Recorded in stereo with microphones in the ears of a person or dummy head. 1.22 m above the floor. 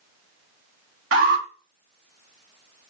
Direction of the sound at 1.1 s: 55° right (ahead or behind).